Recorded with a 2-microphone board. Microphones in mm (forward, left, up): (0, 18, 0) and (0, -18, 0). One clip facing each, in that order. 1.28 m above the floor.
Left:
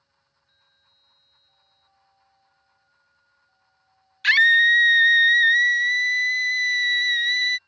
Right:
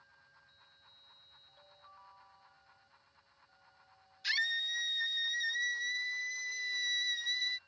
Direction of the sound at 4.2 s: 70° left (ahead or behind).